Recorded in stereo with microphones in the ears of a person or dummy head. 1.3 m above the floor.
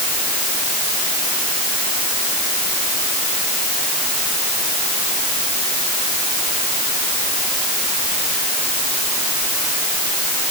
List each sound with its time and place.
Only background noise.